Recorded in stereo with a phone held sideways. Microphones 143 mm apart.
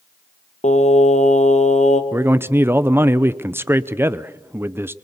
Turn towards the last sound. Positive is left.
turn(degrees=-15)  # may be behind; listen again after turning